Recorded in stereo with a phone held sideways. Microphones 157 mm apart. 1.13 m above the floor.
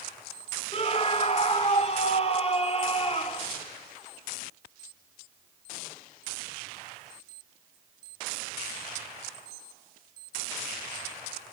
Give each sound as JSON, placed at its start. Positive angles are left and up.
{"t": 0.7, "sound": "a scream", "side_deg": 40, "distance_m": 3.0}